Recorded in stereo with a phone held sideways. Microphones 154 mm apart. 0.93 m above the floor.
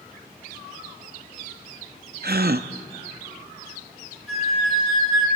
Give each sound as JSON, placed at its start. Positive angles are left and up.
{"t": 2.2, "sound": "a gasp", "side_deg": -75, "distance_m": 0.5}
{"t": 4.3, "sound": "a flute", "side_deg": 0, "distance_m": 8.5}